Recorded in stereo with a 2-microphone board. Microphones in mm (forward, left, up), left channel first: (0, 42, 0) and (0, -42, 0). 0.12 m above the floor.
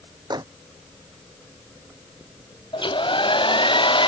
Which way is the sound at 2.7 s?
80° left.